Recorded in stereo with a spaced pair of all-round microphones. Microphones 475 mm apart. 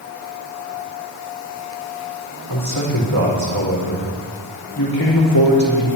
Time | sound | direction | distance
2.5 | a man speaking | 50° left (ahead or behind) | 3 m